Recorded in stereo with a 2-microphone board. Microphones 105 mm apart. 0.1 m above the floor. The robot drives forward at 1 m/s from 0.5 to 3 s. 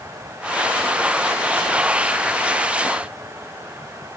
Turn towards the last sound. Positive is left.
No sound to turn to.